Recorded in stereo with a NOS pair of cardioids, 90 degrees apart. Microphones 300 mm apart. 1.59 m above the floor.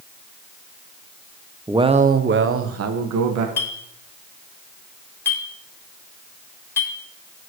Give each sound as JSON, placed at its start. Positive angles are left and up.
{"t": 1.7, "sound": "a man speaking", "azimuth_deg": -10, "distance_m": 1.0}
{"t": 3.6, "sound": "a clink", "azimuth_deg": 10, "distance_m": 2.5}